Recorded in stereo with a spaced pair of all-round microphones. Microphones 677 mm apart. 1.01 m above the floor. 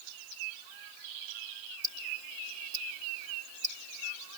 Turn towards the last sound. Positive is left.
turn(degrees=-50)  # may be behind; listen again after turning